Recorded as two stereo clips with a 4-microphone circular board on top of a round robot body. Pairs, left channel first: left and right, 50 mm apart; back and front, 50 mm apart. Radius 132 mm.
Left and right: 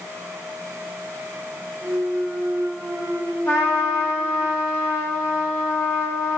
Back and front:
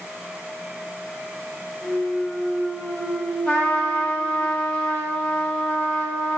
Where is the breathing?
No breathing in this recording.